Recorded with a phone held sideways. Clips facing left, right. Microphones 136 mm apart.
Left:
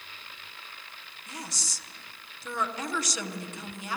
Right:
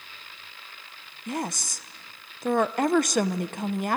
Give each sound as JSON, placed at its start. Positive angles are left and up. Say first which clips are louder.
{"t": 1.3, "sound": "a woman speaking", "louder": "right 11 dB", "side_deg": -55, "distance_m": 0.9}